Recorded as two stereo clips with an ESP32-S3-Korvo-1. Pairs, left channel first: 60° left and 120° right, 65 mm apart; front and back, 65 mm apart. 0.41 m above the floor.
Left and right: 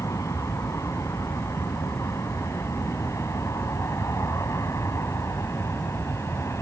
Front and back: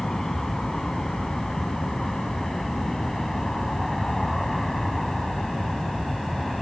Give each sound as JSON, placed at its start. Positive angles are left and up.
{"t": 0.0, "sound": "an aircraft", "azimuth_deg": 85}